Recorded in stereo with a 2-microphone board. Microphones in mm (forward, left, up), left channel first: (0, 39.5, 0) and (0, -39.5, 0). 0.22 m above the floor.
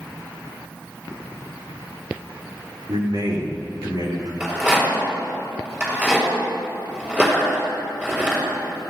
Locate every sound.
2.9 s a man speaking: 65° right (ahead or behind), 4.5 m
4.4 s a rattle: 20° right (ahead or behind), 5 m